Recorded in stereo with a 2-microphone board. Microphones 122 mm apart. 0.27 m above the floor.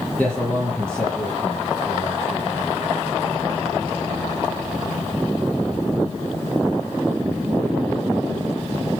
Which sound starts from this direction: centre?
A man speaking, at 0.2 s.